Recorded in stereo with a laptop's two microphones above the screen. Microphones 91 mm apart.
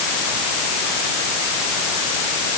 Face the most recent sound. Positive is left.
No sound to turn to.